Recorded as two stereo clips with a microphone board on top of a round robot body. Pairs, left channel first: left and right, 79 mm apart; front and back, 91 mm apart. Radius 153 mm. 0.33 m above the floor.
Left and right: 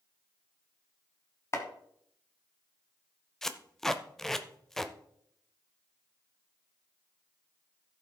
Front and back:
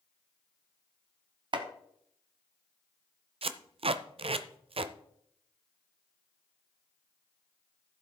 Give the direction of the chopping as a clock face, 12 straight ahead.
7 o'clock.